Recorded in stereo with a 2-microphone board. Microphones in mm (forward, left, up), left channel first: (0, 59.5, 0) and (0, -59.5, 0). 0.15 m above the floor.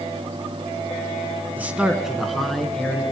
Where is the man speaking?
15° right (ahead or behind), 1.2 m; by 3.0 s 10° left (ahead or behind), 2 m.